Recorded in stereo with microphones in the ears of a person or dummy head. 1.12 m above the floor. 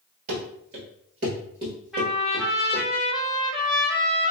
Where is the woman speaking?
No woman speaking in this recording.